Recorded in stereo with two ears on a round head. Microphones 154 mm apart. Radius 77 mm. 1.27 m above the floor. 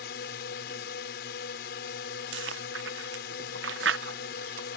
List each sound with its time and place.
0.0 s a drone: 60° left (ahead or behind)
2.3 s chewing: 75° right (ahead or behind)